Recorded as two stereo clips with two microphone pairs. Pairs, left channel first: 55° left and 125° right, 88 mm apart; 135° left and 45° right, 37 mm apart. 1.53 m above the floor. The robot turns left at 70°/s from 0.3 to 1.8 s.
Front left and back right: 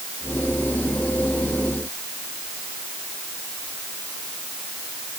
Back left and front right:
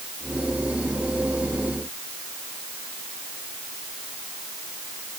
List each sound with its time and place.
Only background noise.